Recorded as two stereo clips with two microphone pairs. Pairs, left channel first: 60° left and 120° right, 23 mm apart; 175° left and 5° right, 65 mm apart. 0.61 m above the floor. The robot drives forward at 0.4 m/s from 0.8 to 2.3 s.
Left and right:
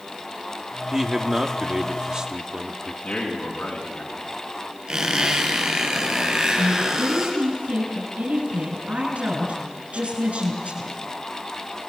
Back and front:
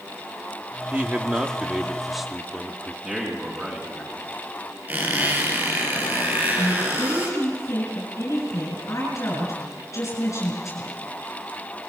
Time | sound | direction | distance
0.9 | a man speaking | 60° right | 1.5 m
3.0 | a man speaking | 70° left | 6 m
4.9 | a squeak | 65° right | 4.5 m
6.6 | a woman speaking | 140° right | 6.5 m